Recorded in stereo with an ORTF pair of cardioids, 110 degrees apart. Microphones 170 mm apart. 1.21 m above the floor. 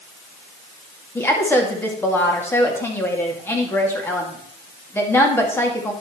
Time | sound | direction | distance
1.1 | a woman speaking | 15° left | 2.5 m